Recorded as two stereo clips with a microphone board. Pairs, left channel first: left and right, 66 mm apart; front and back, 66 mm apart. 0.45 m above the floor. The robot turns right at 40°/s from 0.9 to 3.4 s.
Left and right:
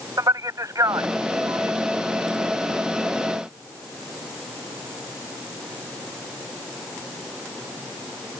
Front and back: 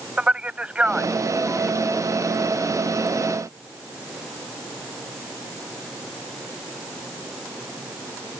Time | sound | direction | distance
0.2 | a man speaking | 110° right | ?